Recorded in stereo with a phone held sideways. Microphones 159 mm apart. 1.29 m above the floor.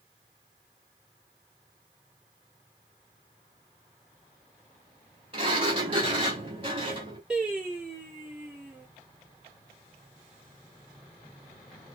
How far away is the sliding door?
About 2.5 m.